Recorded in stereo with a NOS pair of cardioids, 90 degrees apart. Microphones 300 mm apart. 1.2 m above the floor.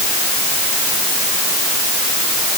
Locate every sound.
Only background noise.